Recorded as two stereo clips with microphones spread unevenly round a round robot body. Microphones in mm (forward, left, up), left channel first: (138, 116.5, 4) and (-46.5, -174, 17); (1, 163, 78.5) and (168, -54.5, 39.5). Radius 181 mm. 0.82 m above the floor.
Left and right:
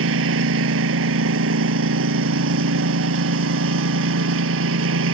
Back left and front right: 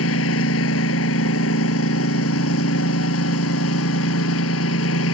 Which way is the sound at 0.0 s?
Straight behind.